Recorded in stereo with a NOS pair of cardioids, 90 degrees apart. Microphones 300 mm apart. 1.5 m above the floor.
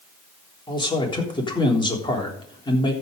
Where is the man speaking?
15° left, 3.5 m.